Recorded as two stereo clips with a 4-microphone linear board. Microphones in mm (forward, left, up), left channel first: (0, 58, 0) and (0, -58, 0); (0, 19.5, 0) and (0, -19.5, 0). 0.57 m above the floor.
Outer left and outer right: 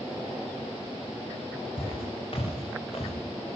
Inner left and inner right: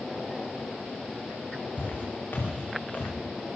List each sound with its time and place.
1.8 s footsteps: 50° left (ahead or behind), 9.5 m; by 3.1 s 55° left (ahead or behind), 11 m